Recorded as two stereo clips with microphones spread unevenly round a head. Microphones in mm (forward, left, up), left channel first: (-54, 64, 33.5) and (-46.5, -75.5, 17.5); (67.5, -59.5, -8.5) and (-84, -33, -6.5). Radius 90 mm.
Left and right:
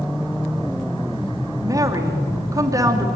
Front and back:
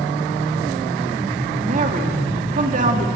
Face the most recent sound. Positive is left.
turn(degrees=-155)